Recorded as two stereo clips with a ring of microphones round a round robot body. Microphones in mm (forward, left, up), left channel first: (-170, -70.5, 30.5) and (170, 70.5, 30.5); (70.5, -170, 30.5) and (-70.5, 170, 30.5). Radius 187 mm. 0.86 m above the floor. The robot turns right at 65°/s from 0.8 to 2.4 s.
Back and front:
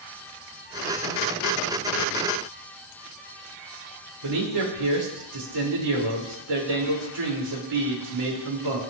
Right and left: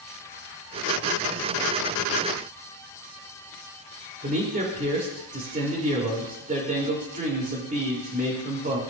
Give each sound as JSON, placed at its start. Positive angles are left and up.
{"t": 4.2, "sound": "a man speaking", "azimuth_deg": 45, "distance_m": 3.0}